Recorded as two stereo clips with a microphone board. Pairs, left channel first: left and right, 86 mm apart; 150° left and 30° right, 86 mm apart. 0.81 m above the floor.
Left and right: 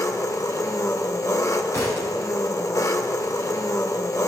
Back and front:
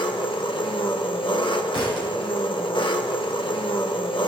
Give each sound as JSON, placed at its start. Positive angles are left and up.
{"t": 0.0, "sound": "an engine running", "azimuth_deg": 140, "distance_m": 0.9}
{"t": 1.7, "sound": "a thud", "azimuth_deg": 140, "distance_m": 3.5}